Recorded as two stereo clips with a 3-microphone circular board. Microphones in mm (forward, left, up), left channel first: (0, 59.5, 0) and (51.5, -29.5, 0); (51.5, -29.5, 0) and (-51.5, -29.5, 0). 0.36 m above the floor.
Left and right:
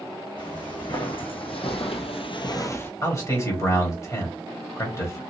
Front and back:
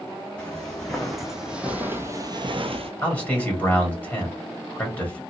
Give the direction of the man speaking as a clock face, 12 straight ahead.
10 o'clock.